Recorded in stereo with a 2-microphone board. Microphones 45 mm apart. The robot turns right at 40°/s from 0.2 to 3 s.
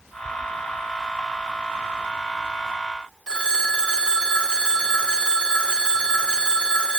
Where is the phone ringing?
20° left (ahead or behind), 0.7 m.